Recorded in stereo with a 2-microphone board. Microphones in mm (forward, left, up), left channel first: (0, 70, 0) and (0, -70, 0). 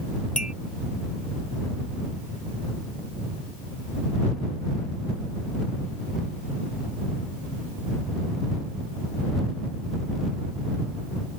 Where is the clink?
65° left (ahead or behind).